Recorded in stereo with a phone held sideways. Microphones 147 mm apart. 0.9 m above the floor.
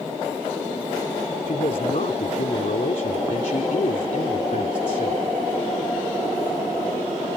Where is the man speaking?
70° left (ahead or behind).